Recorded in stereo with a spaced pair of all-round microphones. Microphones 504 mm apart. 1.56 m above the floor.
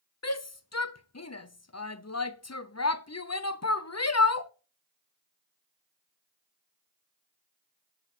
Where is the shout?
30° left (ahead or behind), 0.6 m.